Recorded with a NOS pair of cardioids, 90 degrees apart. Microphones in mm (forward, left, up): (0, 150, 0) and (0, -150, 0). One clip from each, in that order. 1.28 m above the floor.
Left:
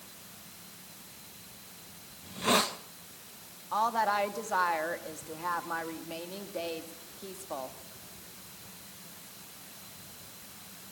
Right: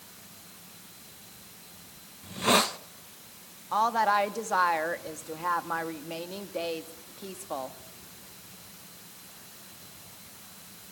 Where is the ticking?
I don't hear ticking.